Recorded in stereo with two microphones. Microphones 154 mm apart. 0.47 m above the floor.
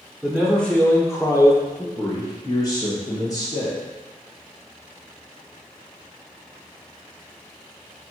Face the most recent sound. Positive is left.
turn(degrees=25)  # may be behind; listen again after turning